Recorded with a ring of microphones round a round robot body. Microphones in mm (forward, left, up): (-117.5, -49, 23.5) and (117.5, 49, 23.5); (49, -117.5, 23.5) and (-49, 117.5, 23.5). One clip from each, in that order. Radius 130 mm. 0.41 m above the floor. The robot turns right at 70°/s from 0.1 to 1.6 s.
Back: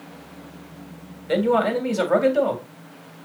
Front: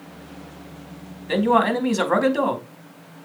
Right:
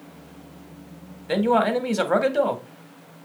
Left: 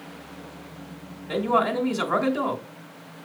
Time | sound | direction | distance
1.3 | a man speaking | 65° right | 1.8 m